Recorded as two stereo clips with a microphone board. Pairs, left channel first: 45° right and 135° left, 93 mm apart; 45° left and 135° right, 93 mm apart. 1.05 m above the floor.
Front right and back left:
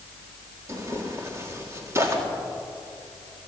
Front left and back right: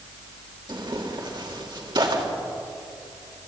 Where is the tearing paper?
165° right, 3 m.